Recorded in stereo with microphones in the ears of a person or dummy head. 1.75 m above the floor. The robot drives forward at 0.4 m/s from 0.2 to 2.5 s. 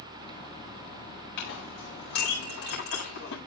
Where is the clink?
70° left (ahead or behind), 7 m; by 3.4 s 65° left (ahead or behind), 7.5 m.